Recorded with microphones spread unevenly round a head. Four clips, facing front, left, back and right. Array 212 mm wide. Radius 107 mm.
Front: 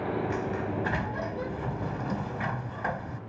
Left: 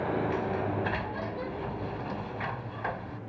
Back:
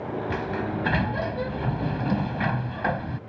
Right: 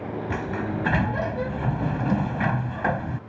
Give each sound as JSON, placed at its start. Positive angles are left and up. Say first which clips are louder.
{"t": 0.3, "sound": "a sliding door", "louder": "right 2 dB, back 2 dB", "azimuth_deg": -120}